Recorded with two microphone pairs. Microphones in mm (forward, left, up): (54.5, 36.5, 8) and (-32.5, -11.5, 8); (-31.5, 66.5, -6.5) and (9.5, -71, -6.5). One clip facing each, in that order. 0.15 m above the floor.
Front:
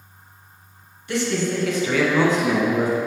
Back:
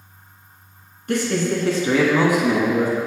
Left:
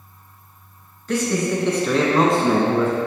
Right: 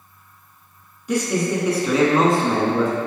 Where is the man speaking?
145° right, 1.7 m; by 3.0 s 45° left, 1.2 m.